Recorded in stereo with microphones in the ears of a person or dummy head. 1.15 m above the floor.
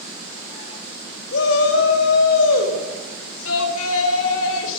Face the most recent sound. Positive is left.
turn(degrees=75)  # may be behind; listen again after turning